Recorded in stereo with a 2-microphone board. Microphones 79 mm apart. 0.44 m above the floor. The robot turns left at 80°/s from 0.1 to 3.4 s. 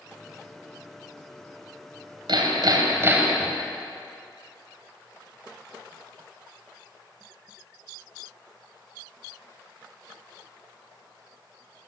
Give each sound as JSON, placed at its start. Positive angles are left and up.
{"t": 2.3, "sound": "hammering", "azimuth_deg": -85, "distance_m": 2.0}